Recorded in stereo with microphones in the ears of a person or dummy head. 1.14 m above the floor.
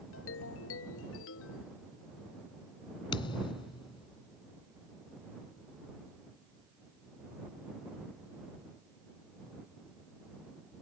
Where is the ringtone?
70° left (ahead or behind).